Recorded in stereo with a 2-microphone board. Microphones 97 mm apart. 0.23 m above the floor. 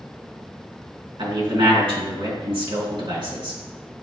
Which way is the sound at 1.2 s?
60° right (ahead or behind).